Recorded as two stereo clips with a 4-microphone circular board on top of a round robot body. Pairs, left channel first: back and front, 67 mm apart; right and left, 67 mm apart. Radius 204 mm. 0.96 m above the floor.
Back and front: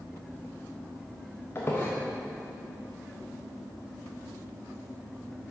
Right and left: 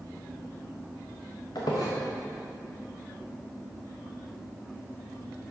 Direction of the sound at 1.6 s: 120° right.